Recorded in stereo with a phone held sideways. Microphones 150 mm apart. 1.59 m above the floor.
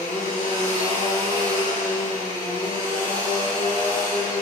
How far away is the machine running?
About 4 m.